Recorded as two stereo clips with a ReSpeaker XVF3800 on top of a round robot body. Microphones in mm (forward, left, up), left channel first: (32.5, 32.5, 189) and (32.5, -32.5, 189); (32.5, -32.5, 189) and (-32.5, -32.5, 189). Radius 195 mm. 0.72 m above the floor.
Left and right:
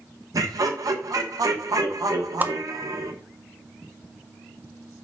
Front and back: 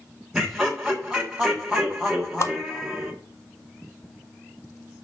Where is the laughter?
105° right, 1.6 m.